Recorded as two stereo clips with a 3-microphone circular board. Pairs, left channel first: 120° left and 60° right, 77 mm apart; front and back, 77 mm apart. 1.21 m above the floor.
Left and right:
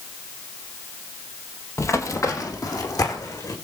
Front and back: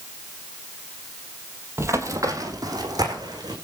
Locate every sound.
1.8 s running footsteps: 145° left, 1.6 m; by 3.5 s 155° left, 3.5 m